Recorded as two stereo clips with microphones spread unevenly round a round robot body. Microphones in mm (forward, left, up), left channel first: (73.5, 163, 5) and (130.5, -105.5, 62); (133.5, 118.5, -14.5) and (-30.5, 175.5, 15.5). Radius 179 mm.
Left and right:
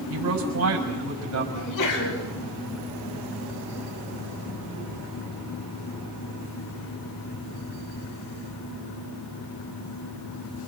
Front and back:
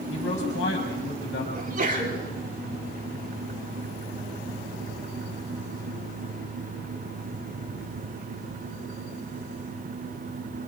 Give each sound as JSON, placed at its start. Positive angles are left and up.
{"t": 0.1, "sound": "a man speaking", "azimuth_deg": -55, "distance_m": 6.5}
{"t": 1.5, "sound": "a sneeze", "azimuth_deg": 125, "distance_m": 9.5}